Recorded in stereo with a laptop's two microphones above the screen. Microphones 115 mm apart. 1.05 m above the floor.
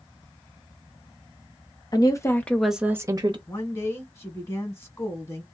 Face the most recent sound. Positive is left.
turn(degrees=25)  # may be behind; listen again after turning